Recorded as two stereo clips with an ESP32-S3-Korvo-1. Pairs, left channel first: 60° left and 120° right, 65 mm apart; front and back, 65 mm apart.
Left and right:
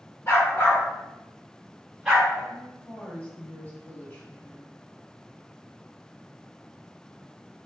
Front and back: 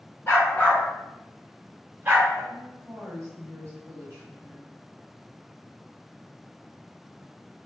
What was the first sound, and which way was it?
A dog barking, 35° left.